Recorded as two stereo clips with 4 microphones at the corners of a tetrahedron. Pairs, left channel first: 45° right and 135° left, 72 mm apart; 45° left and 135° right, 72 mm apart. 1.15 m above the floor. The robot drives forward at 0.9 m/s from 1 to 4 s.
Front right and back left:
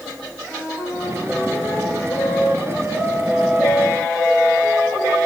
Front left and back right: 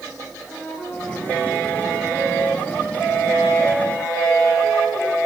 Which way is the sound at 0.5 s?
55° right.